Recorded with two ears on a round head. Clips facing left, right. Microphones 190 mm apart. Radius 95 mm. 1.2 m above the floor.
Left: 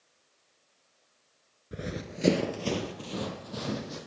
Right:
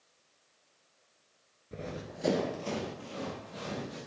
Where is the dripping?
I don't hear dripping.